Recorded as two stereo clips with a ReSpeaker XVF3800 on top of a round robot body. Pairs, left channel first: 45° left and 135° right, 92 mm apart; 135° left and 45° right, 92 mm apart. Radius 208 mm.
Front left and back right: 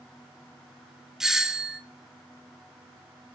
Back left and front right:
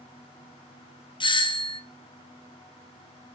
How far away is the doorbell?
About 0.9 m.